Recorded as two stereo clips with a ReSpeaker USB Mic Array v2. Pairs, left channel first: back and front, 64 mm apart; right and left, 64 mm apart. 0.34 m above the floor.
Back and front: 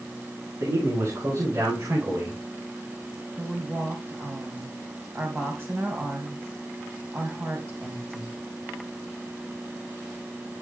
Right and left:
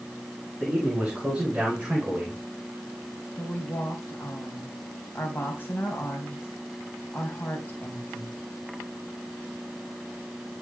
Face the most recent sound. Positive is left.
turn(degrees=-40)